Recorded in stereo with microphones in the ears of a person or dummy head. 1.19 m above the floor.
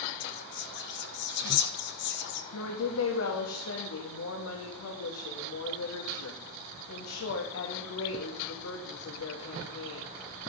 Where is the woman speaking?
85° left, 1.4 m.